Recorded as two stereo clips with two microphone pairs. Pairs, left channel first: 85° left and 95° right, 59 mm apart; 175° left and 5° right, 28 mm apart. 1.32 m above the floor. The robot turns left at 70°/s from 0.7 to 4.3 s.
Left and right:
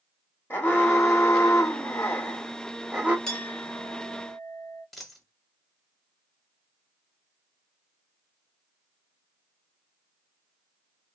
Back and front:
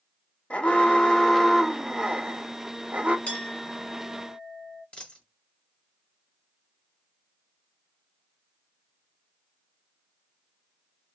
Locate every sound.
0.5 s an alarm: 140° left, 1.2 m; by 3.2 s 35° right, 1.2 m
3.3 s a clink: 160° left, 2.0 m; by 4.8 s 85° left, 2.0 m
4.9 s a dropped coin: 175° left, 1.3 m